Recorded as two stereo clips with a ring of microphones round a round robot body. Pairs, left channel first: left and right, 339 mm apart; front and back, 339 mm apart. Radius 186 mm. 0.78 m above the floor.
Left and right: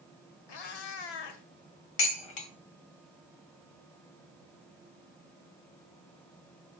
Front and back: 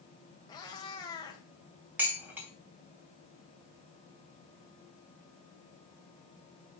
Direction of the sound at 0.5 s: 80° left.